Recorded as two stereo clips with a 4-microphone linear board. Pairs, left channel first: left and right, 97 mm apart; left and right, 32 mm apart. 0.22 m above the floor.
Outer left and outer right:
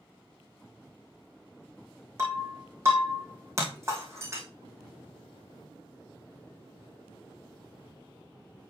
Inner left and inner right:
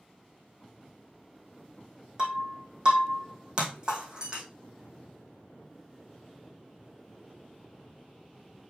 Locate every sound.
2.2 s breaking glass: 30° right (ahead or behind), 2.5 m